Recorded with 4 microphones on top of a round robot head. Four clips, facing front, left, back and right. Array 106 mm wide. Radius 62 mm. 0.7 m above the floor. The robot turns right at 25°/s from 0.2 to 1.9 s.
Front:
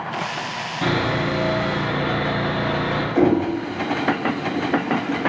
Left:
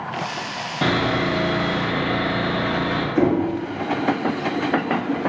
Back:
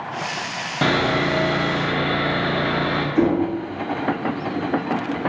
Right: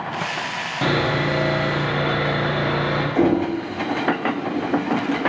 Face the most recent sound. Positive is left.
turn(degrees=-45)